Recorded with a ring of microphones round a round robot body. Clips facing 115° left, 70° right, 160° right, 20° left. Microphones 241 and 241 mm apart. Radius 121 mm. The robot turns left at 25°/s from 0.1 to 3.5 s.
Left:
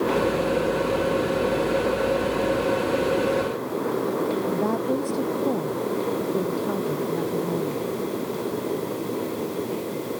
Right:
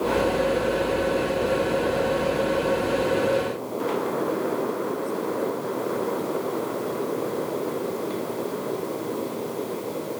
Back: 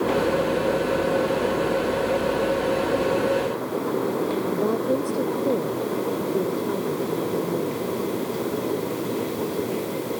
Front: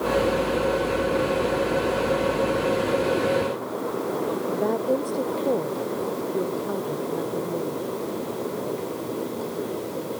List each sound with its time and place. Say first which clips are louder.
4.5 s a woman speaking: left 3 dB, front 1 dB; 120° left